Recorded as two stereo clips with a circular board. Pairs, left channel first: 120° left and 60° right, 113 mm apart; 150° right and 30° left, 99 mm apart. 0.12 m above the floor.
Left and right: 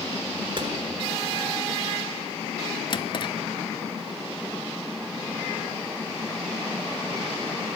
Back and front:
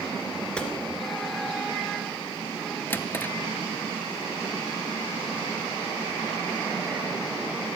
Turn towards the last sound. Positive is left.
turn(degrees=145)